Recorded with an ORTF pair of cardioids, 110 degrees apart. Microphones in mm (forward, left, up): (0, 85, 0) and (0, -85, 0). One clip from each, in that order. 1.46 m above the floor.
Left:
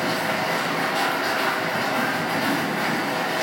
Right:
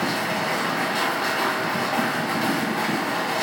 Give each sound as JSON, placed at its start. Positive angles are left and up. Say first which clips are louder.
{"t": 0.0, "sound": "a machine running", "louder": "left 1 dB", "azimuth_deg": -20, "distance_m": 1.3}